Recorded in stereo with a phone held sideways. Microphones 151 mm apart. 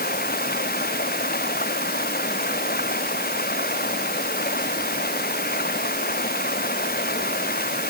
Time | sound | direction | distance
0.0 | running water | 85° left | ?